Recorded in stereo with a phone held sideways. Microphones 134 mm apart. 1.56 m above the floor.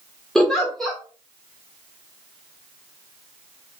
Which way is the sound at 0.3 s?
5° left (ahead or behind).